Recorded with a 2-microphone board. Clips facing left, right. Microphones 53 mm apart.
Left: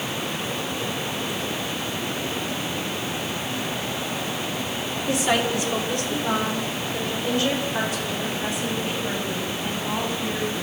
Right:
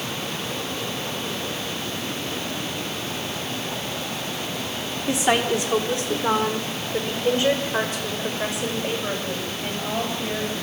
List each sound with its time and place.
5.1 s a woman speaking: 25° right (ahead or behind), 4.5 m; by 10.6 s 35° right (ahead or behind), 11.5 m